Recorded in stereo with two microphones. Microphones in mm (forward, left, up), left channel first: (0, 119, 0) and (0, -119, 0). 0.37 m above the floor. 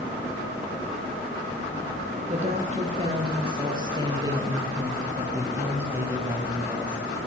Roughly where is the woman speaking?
Right.